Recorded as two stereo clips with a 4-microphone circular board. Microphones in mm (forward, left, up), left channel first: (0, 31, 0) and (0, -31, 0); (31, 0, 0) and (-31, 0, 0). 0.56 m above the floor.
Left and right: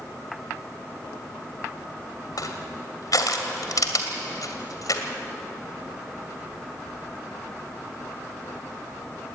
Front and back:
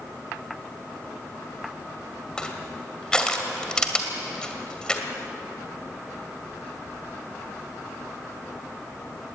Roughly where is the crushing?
Left.